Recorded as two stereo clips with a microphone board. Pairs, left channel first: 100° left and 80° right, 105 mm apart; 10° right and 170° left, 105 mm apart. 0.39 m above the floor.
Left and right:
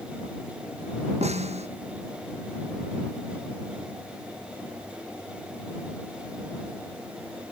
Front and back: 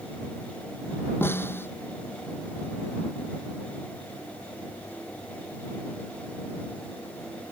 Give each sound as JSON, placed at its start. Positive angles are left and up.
{"t": 1.2, "sound": "a snare drum", "azimuth_deg": -80}